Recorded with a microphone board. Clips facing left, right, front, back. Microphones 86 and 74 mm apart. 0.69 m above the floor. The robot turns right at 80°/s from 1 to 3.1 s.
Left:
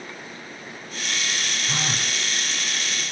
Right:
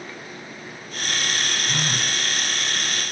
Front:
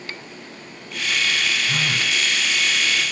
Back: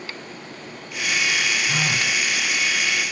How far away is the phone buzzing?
About 4.5 m.